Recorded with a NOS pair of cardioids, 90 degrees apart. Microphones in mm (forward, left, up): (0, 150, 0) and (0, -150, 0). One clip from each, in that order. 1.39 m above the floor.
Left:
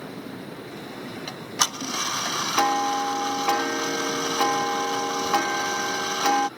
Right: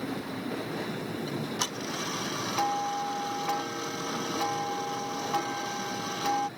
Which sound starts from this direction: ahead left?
Ticking, at 1.3 s.